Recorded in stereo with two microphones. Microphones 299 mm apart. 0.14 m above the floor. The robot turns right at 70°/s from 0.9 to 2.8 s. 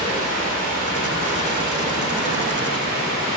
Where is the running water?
55° right, 1.7 m; by 3.4 s 75° left, 1.7 m.